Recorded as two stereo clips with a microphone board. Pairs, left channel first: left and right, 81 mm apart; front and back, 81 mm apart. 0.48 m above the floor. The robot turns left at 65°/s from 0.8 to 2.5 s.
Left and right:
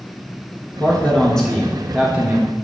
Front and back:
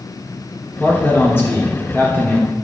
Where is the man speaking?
55° left, 1.2 m; by 2.5 s 55° right, 1.2 m.